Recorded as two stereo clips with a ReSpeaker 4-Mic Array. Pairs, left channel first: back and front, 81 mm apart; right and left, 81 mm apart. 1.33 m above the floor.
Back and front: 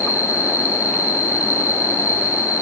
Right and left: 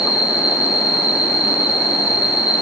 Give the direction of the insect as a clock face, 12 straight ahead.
4 o'clock.